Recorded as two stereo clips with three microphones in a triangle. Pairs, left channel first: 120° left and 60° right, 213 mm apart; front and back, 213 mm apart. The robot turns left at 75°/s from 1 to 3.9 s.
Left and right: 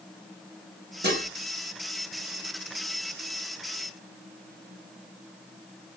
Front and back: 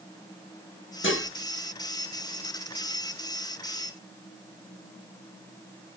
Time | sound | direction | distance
1.0 | dishes clattering | 25° right | 1.1 m